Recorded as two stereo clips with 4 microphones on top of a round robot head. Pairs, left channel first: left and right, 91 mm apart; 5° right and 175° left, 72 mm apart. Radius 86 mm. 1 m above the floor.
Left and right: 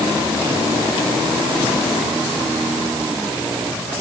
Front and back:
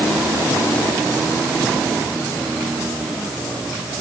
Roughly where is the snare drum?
No snare drum in this recording.